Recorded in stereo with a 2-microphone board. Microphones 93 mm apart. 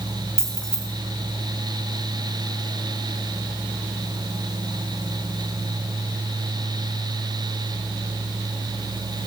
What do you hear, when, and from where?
0.4 s keys jangling: 10° left (ahead or behind), 2 m